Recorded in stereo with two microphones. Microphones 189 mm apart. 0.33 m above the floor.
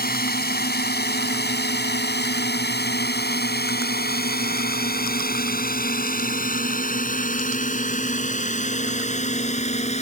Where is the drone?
55° left (ahead or behind); by 10.0 s 35° left (ahead or behind).